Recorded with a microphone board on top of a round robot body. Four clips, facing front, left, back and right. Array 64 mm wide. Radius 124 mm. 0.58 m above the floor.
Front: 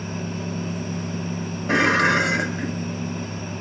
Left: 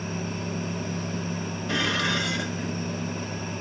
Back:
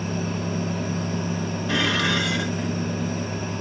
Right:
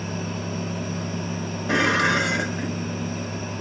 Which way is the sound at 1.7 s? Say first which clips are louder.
Right 7 dB, front 6 dB; 35° right.